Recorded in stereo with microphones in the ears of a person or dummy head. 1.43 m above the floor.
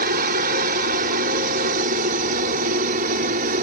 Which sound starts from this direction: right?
A helicopter, at 0.0 s.